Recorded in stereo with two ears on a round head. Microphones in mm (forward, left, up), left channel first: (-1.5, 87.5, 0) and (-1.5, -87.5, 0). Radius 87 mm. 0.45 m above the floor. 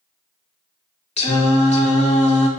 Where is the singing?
35° left (ahead or behind), 0.8 m.